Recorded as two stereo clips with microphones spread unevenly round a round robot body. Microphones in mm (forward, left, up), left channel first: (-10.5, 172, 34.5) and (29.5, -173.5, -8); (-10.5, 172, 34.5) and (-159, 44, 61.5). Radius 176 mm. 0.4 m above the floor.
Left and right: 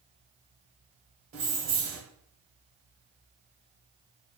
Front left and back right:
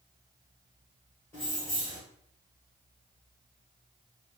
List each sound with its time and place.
1.3 s keys jangling: 35° right, 1.0 m